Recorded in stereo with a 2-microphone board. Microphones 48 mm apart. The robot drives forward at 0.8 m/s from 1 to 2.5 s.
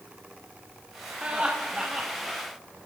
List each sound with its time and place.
1.2 s laughter: 25° right (ahead or behind), 1.3 m; by 2.4 s 15° right (ahead or behind), 2.0 m